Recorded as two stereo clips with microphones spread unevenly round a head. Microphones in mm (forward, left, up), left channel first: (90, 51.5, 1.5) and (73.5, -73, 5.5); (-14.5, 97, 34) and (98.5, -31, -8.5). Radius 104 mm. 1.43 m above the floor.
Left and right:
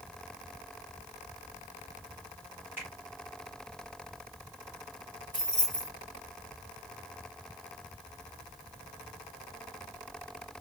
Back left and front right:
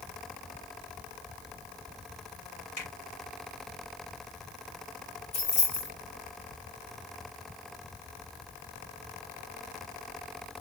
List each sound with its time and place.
2.8 s a finger snap: straight behind, 2 m
5.3 s keys jangling: 170° right, 2.5 m